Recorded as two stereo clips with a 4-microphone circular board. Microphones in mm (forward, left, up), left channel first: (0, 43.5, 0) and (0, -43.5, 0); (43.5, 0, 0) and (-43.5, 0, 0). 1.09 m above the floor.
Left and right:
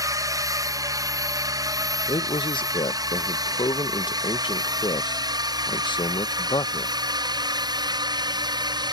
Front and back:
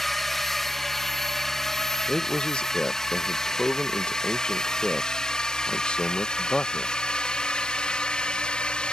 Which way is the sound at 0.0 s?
85° right.